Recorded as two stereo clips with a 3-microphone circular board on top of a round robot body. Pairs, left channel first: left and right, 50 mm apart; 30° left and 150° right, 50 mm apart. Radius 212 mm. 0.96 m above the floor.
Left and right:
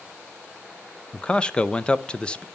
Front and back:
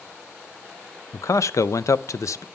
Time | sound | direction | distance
1.1 | a man speaking | 20° left | 0.5 m